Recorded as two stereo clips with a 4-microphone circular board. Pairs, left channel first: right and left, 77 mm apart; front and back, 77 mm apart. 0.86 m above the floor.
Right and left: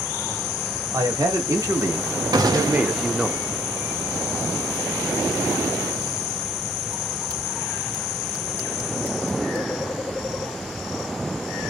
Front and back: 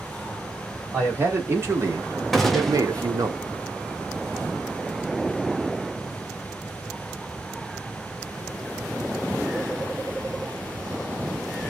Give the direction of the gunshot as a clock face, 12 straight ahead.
9 o'clock.